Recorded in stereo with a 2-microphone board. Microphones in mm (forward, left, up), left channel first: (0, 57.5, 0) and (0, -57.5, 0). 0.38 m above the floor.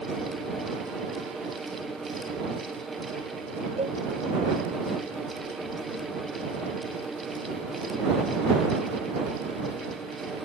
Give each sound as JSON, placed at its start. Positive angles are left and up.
{"t": 3.8, "sound": "a cowbell", "side_deg": -85}